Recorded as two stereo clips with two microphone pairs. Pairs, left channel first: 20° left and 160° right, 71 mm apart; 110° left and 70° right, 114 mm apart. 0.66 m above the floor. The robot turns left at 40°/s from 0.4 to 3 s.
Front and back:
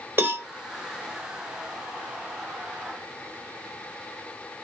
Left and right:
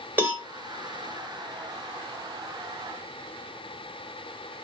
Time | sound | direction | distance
0.2 | a cowbell | 130° right | 1.1 m